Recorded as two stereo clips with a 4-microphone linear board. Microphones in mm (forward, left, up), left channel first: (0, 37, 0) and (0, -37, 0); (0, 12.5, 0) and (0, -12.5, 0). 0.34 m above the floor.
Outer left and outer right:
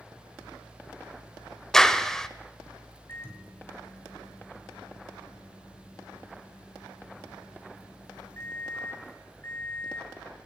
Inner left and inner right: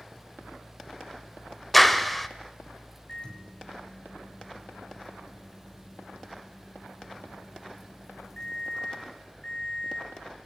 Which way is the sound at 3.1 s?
30° left (ahead or behind).